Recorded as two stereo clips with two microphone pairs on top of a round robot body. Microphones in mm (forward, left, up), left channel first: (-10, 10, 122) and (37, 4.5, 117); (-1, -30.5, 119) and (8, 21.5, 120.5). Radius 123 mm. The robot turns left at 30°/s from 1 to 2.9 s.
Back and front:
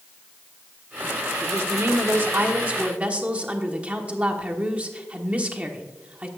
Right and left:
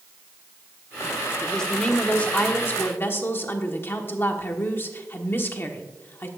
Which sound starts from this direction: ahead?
A woman speaking, at 1.4 s.